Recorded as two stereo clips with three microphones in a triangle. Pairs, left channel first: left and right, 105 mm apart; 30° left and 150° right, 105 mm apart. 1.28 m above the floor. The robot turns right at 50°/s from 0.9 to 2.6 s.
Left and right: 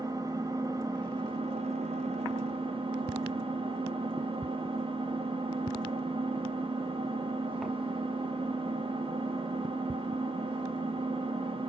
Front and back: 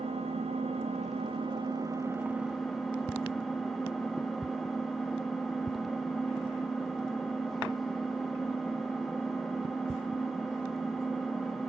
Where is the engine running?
145° right, 1.5 m; by 11.7 s 60° right, 1.5 m.